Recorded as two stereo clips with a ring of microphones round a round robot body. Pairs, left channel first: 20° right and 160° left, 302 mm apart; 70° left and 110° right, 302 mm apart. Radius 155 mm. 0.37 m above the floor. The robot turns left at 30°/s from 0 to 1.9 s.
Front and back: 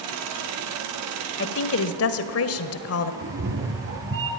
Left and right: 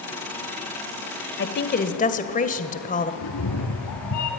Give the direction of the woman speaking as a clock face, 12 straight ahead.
11 o'clock.